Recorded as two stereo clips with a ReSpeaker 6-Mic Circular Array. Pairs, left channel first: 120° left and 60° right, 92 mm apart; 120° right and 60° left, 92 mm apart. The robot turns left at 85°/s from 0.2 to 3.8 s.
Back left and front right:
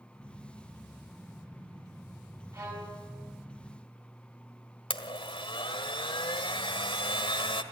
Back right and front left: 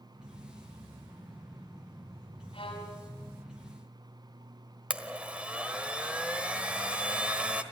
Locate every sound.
2.5 s a violin: 110° right, 5.5 m; by 3.1 s 160° right, 5.5 m
4.9 s a blender: 140° left, 1.4 m